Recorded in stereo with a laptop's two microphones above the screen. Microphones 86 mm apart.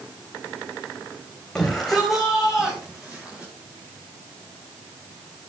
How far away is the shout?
About 4 m.